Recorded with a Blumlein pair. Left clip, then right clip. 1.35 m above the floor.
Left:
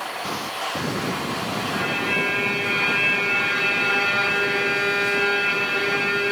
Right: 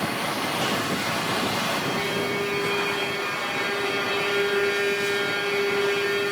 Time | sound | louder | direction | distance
0.0 | a machine running | right 2 dB | 50° right | 3 m
1.7 | a violin | left 3 dB | 40° left | 3 m